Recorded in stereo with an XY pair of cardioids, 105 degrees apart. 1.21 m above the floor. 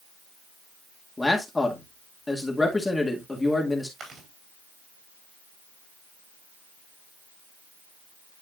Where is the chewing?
55° right, 4 m.